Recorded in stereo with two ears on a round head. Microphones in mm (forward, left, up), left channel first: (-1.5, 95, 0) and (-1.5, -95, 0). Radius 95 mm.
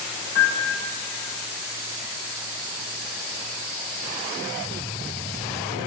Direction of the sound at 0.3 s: 55° left (ahead or behind).